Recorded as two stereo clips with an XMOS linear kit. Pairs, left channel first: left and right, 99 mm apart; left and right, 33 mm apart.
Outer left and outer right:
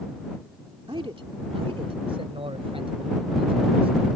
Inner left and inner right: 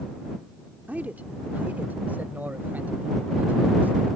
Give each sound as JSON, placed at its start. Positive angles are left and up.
{"t": 0.9, "sound": "a man speaking", "side_deg": -65}